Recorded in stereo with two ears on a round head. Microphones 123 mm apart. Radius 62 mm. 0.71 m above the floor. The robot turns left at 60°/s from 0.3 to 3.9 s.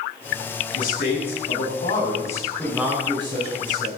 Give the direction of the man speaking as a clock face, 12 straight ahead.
8 o'clock.